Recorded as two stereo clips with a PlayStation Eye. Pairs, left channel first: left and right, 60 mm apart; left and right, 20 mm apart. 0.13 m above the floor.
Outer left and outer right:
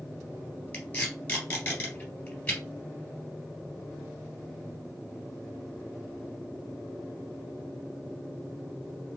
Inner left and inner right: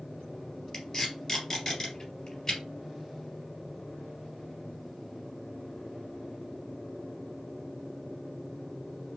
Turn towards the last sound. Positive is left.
turn(degrees=25)  # may be behind; listen again after turning